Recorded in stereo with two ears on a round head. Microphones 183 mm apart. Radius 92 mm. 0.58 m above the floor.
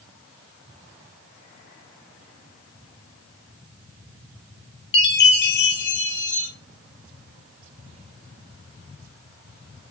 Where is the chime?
55° left (ahead or behind), 2.5 m.